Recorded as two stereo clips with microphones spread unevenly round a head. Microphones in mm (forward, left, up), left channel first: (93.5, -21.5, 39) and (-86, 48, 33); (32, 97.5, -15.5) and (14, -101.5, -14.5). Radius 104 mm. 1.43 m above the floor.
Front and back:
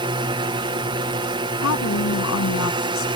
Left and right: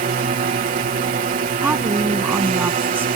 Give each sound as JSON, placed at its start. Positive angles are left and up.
{"t": 0.0, "sound": "a drone", "azimuth_deg": -140}
{"t": 1.6, "sound": "a woman speaking", "azimuth_deg": -15}